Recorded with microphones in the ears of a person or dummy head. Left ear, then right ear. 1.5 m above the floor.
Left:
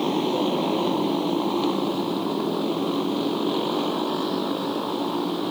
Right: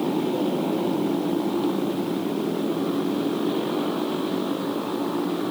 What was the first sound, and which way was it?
A motorcycle, 40° left (ahead or behind).